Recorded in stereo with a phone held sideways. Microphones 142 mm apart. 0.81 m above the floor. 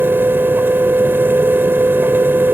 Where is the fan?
15° right (ahead or behind).